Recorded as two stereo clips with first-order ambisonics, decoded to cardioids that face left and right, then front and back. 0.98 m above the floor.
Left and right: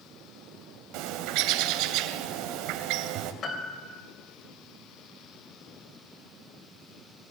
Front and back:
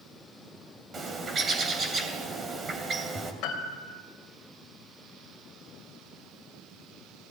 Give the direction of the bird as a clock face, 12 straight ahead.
4 o'clock.